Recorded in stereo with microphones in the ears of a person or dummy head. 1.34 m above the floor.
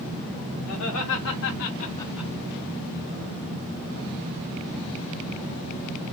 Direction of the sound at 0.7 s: 75° left (ahead or behind).